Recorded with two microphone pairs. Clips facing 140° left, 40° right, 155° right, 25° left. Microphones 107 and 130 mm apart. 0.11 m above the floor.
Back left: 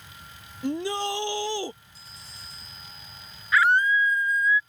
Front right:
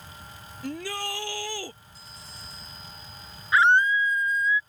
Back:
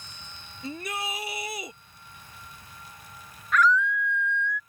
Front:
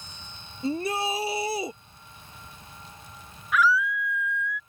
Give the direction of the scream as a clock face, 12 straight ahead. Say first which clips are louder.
Front right 1 dB, back 1 dB; 2 o'clock.